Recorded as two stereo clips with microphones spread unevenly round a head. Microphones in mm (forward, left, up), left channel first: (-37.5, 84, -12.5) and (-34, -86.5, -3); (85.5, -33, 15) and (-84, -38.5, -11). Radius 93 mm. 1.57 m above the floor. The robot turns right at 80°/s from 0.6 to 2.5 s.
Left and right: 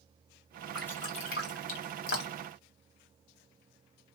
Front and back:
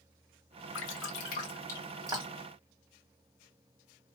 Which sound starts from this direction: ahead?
Dripping, at 0.8 s.